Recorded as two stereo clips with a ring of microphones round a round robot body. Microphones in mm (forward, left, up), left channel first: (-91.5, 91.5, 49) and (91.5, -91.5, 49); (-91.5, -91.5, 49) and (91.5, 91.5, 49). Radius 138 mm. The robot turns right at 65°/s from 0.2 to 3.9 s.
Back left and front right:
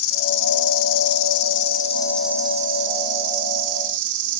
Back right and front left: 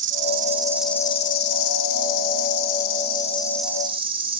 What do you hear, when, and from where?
0.0 s an insect: 95° left, 1.1 m; by 4.4 s 25° right, 1.1 m